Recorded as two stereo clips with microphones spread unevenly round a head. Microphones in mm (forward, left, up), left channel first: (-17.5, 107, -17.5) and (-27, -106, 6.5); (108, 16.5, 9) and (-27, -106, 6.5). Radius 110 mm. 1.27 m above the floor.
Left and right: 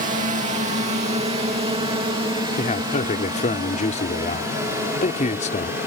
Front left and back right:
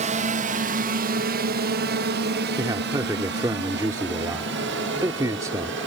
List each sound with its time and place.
0.0 s a drone: 135° right; by 5.9 s 170° right
2.6 s a man speaking: 145° left